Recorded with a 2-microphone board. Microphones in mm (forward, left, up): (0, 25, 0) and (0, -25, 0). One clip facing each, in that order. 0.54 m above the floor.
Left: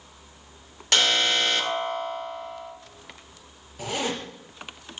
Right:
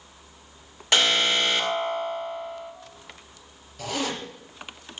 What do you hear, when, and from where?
0.9 s an alarm: 10° right (ahead or behind), 1.9 m
3.8 s a zipper: 15° left (ahead or behind), 3.5 m